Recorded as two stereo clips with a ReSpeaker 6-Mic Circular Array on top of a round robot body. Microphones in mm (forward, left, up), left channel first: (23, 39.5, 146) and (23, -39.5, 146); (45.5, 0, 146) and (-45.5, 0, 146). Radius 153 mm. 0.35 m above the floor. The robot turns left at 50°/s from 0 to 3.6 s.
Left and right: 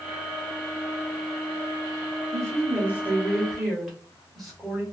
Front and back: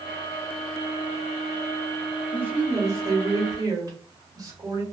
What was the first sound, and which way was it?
A woman speaking, 115° right.